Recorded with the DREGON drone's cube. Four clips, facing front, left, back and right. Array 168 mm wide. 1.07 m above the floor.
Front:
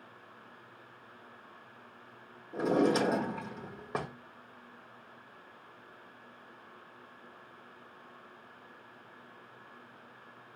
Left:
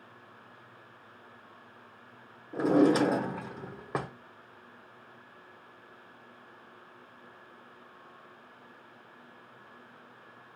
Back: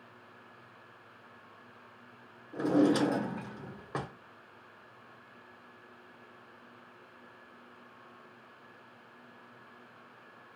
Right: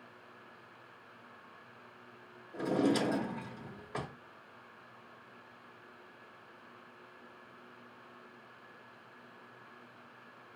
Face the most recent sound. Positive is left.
turn(degrees=75)